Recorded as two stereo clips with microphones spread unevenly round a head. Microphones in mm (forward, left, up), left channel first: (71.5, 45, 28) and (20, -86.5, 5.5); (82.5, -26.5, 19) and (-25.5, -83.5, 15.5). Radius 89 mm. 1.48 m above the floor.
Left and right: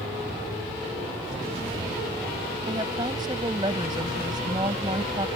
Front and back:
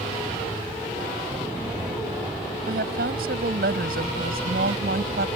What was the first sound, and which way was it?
A woman speaking, 175° left.